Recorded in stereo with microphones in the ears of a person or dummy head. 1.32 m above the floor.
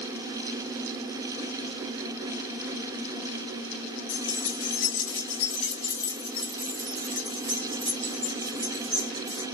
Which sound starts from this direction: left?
Keys jangling, at 4.1 s.